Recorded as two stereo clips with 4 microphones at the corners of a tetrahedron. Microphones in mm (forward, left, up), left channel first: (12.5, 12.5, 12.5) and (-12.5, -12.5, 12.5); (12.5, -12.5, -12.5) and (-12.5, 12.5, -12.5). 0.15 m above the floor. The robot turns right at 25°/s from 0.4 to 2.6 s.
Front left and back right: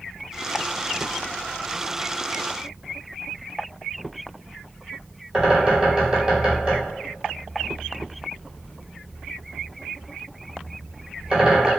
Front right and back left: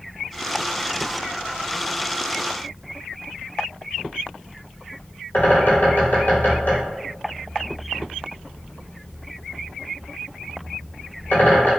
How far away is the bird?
About 1.5 m.